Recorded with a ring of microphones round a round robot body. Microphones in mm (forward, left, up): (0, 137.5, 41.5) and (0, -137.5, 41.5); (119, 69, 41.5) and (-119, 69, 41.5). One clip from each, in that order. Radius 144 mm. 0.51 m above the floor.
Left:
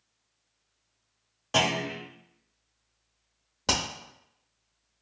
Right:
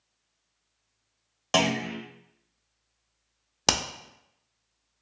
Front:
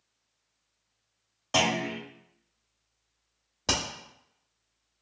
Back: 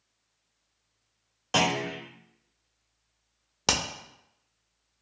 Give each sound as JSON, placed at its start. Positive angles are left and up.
{"t": 1.5, "sound": "a clunk", "azimuth_deg": -100, "distance_m": 1.1}
{"t": 3.7, "sound": "hammering", "azimuth_deg": -125, "distance_m": 0.6}